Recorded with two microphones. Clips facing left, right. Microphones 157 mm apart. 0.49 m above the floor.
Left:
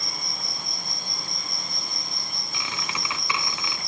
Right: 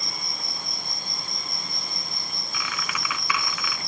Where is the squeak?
30° left (ahead or behind).